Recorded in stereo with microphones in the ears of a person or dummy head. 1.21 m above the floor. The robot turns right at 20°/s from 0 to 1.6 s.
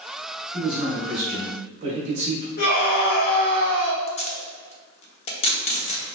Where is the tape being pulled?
25° left (ahead or behind), 0.7 m.